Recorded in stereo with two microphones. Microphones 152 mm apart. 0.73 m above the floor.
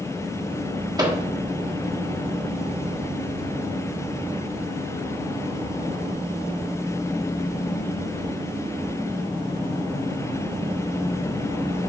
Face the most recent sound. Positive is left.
turn(degrees=-30)  # may be behind; listen again after turning